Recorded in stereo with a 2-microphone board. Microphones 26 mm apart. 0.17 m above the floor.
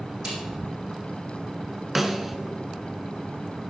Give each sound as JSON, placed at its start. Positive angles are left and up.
{"t": 0.2, "sound": "a snare drum", "side_deg": -25, "distance_m": 4.0}
{"t": 1.9, "sound": "a snare drum", "side_deg": -10, "distance_m": 1.1}